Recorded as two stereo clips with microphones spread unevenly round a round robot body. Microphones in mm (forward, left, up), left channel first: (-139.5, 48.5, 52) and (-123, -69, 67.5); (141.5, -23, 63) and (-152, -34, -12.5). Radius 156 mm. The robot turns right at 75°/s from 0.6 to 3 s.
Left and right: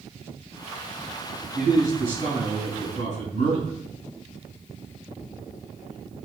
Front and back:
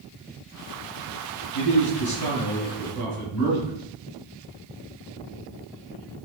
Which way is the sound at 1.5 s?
15° right.